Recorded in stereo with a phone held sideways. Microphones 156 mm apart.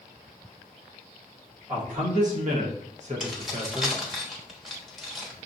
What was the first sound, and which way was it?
A man speaking, 50° right (ahead or behind).